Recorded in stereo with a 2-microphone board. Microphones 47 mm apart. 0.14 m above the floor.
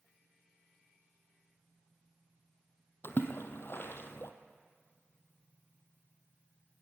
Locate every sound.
3.0 s a splash: 60° left (ahead or behind), 1.6 m